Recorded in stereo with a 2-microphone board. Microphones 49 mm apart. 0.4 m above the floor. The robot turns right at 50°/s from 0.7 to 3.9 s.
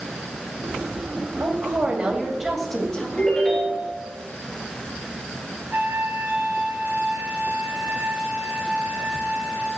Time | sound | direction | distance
1.4 | a woman speaking | 55° right | 2.5 m
3.2 | a ringtone | 150° left | 4 m
5.7 | a trumpet | 45° right (ahead or behind) | 1.7 m